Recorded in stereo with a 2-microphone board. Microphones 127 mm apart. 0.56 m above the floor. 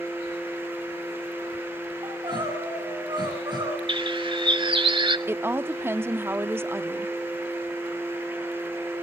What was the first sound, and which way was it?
Crying, 35° right (ahead or behind).